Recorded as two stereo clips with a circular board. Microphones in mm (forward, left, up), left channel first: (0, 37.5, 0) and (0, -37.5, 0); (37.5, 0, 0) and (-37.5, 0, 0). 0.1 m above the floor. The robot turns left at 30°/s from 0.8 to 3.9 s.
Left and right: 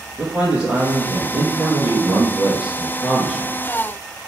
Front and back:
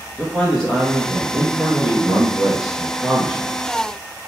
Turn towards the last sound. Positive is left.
turn(degrees=-155)